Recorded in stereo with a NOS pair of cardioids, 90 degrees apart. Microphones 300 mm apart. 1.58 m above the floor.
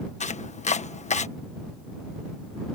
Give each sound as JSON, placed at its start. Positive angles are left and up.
{"t": 0.2, "sound": "chopping", "azimuth_deg": 25}